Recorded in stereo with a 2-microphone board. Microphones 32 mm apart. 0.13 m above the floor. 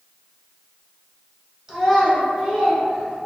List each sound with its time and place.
1.7 s a child speaking: 10° right (ahead or behind), 1.3 m; by 3.3 s 50° right (ahead or behind), 1.5 m